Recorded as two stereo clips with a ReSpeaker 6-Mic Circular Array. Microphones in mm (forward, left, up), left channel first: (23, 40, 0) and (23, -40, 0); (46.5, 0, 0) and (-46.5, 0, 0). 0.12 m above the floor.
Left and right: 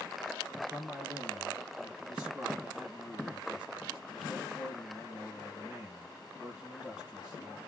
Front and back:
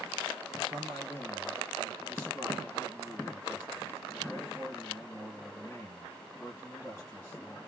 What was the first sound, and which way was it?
A man speaking, 25° right.